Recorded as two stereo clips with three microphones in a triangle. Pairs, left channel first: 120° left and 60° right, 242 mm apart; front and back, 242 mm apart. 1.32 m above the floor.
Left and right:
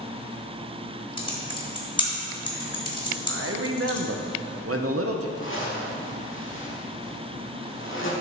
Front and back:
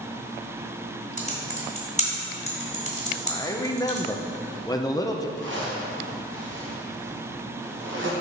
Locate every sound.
1.2 s typing on a keyboard: 55° left, 1.4 m
3.3 s a man speaking: 75° right, 0.7 m
5.4 s a zipper: 150° left, 1.2 m